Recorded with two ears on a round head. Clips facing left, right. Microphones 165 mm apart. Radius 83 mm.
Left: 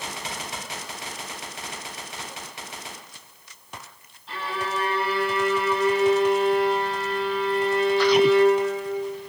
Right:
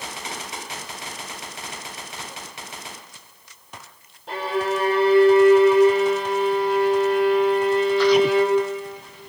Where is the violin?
45° right (ahead or behind), 4.5 m.